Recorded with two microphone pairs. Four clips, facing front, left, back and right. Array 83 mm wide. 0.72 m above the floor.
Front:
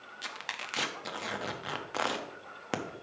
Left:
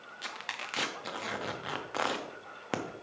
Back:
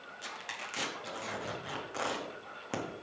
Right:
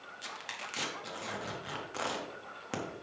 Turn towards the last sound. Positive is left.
turn(degrees=55)